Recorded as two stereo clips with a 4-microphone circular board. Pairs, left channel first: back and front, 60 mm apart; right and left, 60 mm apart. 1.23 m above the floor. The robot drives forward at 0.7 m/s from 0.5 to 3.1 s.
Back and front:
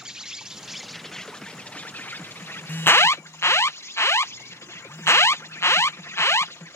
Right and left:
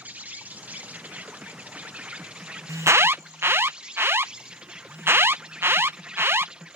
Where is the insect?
70° left; by 6.8 s 160° left.